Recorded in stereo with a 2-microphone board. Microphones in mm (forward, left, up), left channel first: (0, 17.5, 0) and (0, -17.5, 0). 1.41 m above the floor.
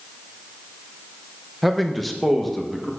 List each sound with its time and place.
1.6 s a man speaking: centre (ahead or behind), 0.7 m; by 2.9 s 5° left (ahead or behind), 1.5 m